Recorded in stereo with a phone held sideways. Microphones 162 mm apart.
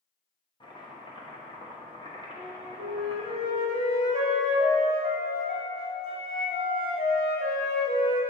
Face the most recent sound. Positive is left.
turn(degrees=75)  # may be behind; listen again after turning